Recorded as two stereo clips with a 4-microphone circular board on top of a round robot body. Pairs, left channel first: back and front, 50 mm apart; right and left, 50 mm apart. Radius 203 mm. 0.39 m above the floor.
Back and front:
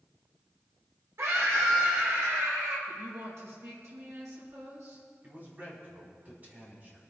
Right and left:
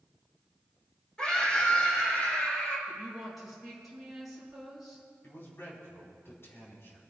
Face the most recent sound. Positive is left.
turn(degrees=-50)